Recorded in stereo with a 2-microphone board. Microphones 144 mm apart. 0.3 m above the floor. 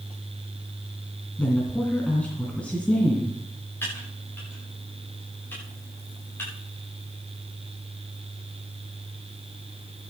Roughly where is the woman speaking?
Centre.